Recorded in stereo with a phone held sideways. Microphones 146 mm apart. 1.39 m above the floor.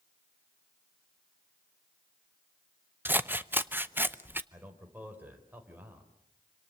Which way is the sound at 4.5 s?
10° right (ahead or behind).